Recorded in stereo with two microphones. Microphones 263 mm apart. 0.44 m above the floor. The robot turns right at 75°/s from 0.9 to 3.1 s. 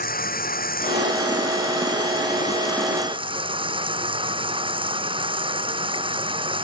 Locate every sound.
0.0 s running water: 35° left; by 6.7 s 160° right